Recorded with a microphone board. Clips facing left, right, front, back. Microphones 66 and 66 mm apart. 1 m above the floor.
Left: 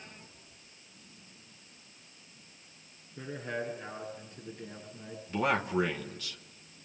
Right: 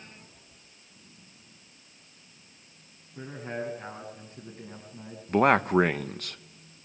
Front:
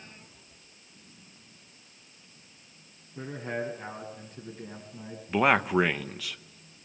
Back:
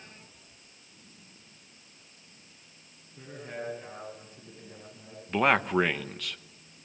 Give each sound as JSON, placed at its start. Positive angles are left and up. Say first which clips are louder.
{"t": 3.1, "sound": "a man speaking", "louder": "right 1 dB, front 6 dB", "azimuth_deg": -40, "distance_m": 8.5}
{"t": 5.3, "sound": "a man speaking", "louder": "right 8 dB, front 1 dB", "azimuth_deg": -85, "distance_m": 0.9}